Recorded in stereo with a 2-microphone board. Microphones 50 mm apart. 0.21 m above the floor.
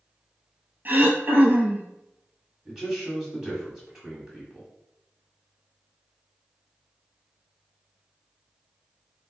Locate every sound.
0.8 s throat clearing: 40° right (ahead or behind), 0.7 m
2.6 s a man speaking: 10° right (ahead or behind), 1.5 m